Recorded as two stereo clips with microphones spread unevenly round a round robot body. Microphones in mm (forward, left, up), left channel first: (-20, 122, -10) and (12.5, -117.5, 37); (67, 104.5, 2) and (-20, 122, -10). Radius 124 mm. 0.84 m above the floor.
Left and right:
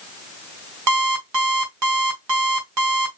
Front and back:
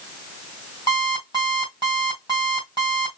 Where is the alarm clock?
80° right, 2.0 m.